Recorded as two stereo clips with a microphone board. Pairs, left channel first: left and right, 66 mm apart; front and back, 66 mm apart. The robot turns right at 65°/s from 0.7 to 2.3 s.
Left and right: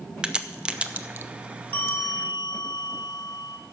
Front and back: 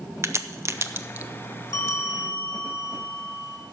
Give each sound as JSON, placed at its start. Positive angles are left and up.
{"t": 0.2, "sound": "a crack", "azimuth_deg": -155, "distance_m": 0.6}
{"t": 1.7, "sound": "a bell", "azimuth_deg": 35, "distance_m": 1.5}